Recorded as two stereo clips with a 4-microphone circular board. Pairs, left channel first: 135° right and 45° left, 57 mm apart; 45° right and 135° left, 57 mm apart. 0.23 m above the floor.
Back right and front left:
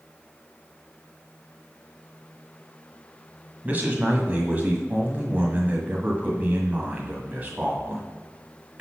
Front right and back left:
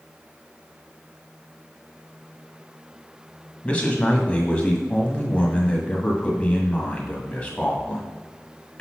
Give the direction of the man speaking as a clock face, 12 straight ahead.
12 o'clock.